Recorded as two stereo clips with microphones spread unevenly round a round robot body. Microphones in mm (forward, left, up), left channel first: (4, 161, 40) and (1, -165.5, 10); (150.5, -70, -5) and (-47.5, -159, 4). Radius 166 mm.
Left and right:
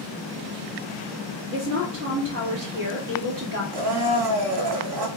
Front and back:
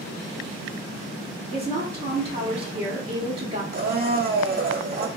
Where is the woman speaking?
105° right, 1.0 m.